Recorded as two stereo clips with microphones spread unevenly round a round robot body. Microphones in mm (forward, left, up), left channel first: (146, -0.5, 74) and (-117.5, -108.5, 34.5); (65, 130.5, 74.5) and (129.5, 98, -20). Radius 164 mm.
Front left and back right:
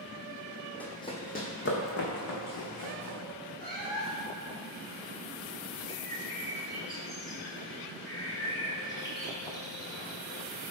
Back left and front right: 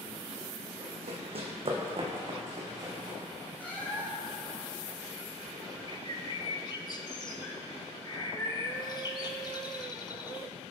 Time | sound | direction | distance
0.8 | running footsteps | 60° right | 1.2 m
3.6 | a cat meowing | 95° left | 2 m
5.9 | a bird | 100° left | 0.8 m